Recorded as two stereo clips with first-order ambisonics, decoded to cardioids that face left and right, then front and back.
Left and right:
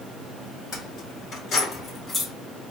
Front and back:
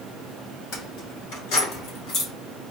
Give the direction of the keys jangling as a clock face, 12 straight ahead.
11 o'clock.